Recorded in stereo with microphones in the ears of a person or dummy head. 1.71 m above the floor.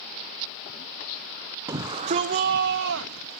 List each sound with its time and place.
1.7 s a shout: 15° right (ahead or behind), 0.7 m; by 3.4 s 70° right (ahead or behind), 1.2 m